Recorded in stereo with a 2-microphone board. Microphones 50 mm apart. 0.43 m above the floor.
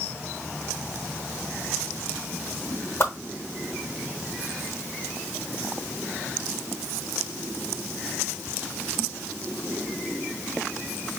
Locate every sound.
3.0 s a whoosh: 50° left (ahead or behind), 0.8 m